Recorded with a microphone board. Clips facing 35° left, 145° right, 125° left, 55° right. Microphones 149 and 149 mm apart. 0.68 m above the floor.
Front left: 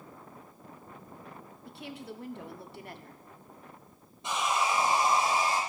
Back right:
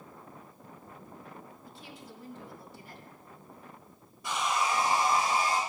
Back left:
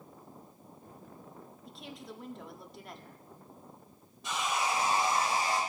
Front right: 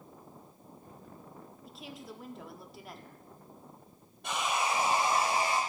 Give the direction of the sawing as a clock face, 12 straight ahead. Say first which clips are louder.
Front left 1 dB, front right 1 dB; 1 o'clock.